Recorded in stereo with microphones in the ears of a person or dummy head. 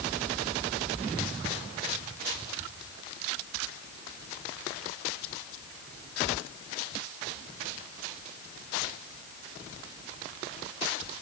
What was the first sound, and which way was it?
Only background noise.